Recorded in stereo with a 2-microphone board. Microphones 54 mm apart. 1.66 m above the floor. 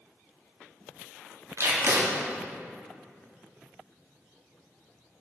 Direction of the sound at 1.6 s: 60° right (ahead or behind).